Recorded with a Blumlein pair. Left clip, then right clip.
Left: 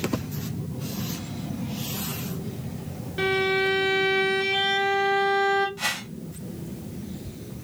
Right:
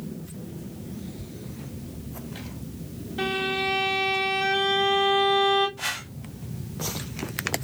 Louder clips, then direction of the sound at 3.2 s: Left 3 dB; 65° left.